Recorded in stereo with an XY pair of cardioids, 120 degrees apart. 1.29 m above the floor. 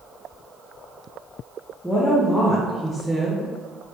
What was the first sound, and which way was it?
A woman speaking, 10° left.